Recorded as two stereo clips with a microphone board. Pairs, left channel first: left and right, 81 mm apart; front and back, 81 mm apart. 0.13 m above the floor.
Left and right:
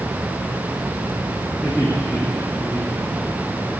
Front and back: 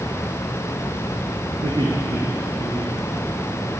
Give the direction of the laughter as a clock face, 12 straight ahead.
6 o'clock.